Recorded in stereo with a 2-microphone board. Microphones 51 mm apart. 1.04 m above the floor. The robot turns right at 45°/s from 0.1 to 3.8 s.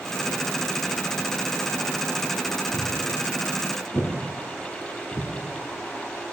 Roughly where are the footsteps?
Left.